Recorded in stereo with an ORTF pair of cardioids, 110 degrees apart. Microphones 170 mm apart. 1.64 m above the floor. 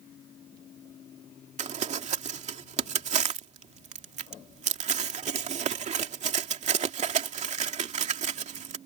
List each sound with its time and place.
1.6 s crumpling: 45° right